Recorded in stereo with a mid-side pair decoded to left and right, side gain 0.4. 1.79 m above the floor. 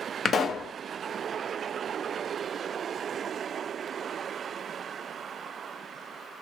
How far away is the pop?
About 0.6 m.